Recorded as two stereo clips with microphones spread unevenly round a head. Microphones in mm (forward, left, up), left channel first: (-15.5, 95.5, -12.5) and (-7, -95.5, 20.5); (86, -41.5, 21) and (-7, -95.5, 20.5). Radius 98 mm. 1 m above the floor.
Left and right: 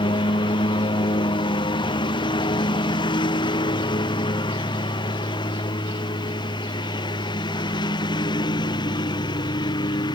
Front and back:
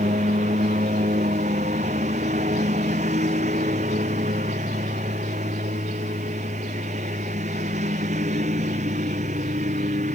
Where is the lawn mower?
160° left.